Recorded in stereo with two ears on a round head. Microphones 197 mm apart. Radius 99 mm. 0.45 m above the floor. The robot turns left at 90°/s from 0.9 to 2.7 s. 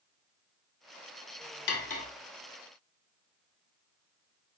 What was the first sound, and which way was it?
Cutlery clinking, 50° left (ahead or behind).